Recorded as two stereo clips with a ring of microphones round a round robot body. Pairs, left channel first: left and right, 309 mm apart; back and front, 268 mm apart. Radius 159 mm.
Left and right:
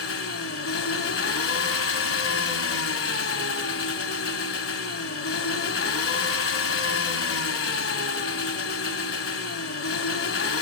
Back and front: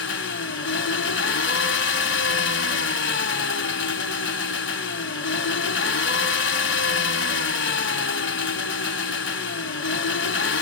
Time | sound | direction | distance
0.0 | an engine running | 135° left | 1.4 m